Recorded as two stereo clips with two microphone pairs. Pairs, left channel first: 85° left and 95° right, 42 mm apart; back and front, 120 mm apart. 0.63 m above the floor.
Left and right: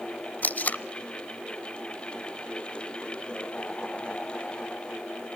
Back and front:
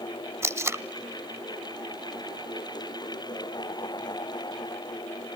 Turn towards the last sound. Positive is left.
turn(degrees=60)